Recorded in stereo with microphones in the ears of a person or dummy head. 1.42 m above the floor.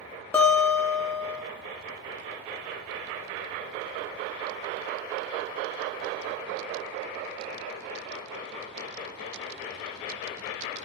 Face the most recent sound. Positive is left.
turn(degrees=15)  # may be behind; listen again after turning